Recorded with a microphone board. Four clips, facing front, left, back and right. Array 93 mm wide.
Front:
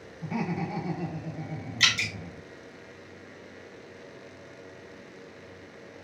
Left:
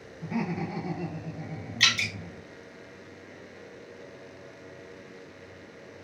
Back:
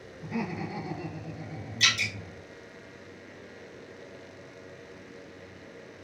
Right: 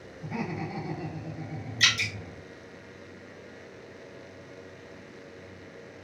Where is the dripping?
55° left, 1.5 m.